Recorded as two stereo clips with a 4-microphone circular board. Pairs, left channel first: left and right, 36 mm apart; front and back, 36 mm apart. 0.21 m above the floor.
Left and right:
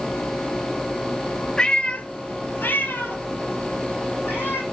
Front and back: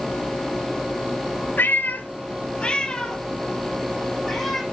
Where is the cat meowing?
20° left, 1.0 m; by 4.6 s 90° left, 2.5 m.